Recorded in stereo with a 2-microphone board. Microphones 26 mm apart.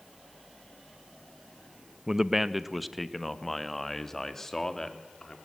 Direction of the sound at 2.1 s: 25° right (ahead or behind).